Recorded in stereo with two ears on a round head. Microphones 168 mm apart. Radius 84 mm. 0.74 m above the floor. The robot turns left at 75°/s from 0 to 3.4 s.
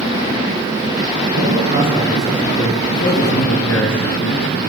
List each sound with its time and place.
1.3 s a man speaking: 110° right, 8.5 m; by 4.6 s 95° left, 8.5 m